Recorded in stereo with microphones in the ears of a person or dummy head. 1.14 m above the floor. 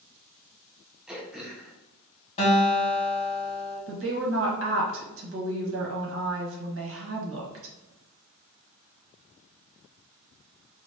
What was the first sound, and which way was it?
Throat clearing, centre (ahead or behind).